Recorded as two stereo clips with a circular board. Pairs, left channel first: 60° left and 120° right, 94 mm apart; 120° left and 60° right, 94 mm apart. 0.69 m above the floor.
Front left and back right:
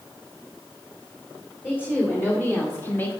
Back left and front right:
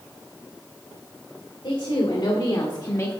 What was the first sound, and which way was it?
A woman speaking, 130° left.